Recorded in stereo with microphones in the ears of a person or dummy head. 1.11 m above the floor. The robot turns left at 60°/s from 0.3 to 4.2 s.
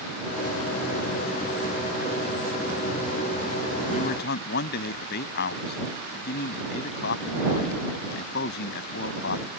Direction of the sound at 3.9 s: 40° left (ahead or behind).